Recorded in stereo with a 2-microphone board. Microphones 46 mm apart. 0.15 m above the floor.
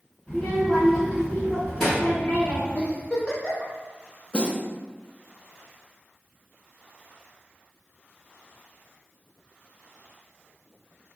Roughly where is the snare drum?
Left.